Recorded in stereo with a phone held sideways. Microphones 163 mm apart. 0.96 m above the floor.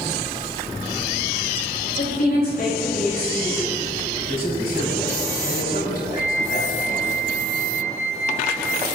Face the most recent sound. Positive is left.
turn(degrees=70)  # may be behind; listen again after turning